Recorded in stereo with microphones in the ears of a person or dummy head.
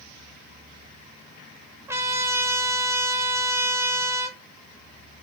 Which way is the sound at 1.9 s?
15° right (ahead or behind).